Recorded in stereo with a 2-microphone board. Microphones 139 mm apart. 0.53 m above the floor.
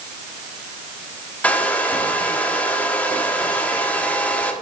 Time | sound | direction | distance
1.4 | a hair dryer | 10° left (ahead or behind) | 0.6 m